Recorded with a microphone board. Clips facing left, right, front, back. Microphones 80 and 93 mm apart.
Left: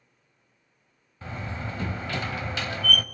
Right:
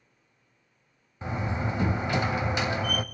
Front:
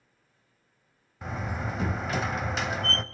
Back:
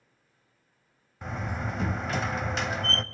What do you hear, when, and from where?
1.2 s a door slam: 90° right, 0.8 m